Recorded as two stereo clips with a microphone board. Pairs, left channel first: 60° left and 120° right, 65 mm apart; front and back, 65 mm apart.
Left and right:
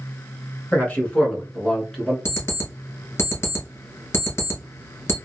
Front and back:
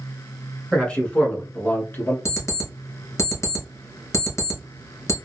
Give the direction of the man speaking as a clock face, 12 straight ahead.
10 o'clock.